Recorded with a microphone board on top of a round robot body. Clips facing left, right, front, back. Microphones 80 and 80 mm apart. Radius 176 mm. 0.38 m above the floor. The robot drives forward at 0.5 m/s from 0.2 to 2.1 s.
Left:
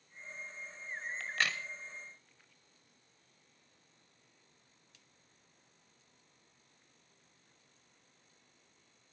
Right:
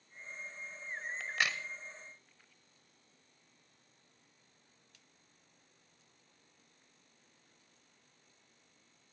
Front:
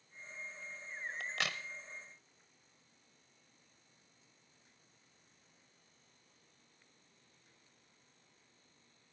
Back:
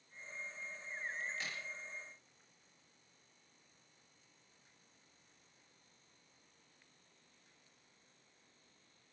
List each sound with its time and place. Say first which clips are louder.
1.2 s a crack: even, front 4 dB; 10° right, 1.0 m